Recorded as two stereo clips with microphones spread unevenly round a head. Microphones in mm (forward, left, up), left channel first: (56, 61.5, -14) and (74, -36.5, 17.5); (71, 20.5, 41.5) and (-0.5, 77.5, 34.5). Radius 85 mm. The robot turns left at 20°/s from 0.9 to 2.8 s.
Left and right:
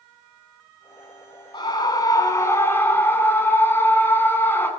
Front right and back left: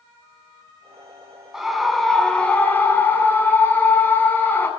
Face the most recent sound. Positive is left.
turn(degrees=30)